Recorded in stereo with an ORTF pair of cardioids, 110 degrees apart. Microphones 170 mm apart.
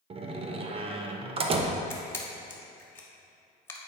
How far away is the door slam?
About 0.7 m.